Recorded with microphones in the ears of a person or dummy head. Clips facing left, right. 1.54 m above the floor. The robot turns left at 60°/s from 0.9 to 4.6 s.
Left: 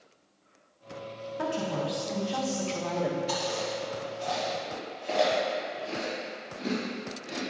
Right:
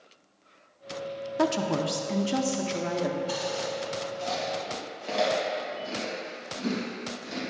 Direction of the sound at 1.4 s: 80° right.